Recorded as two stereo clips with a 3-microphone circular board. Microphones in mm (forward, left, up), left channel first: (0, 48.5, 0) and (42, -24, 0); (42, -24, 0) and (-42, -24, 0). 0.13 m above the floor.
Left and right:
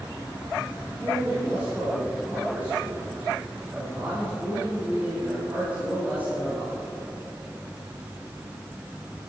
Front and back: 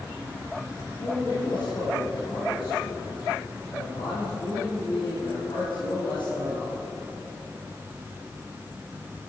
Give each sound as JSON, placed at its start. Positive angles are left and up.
{"t": 1.0, "sound": "a man speaking", "azimuth_deg": 10, "distance_m": 6.0}